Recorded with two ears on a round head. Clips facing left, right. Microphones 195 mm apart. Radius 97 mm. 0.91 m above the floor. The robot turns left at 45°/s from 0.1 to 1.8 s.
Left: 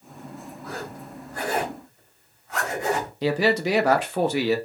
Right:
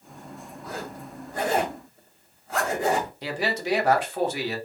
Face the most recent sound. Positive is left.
turn(degrees=60)  # may be behind; listen again after turning